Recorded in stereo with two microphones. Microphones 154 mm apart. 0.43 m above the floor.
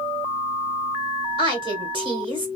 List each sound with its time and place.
1.4 s a woman speaking: 35° right (ahead or behind), 1.6 m